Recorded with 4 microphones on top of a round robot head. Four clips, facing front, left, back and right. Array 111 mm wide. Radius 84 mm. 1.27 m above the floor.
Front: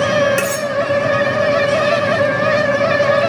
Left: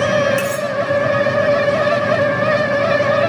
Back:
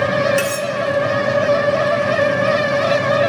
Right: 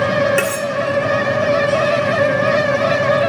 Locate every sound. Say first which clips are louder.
0.4 s cutlery clinking: right 1 dB, front 2 dB; 65° right, 2.5 m